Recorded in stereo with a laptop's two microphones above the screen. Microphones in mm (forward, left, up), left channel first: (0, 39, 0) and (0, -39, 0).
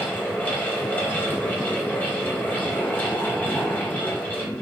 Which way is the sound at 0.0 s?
20° left (ahead or behind).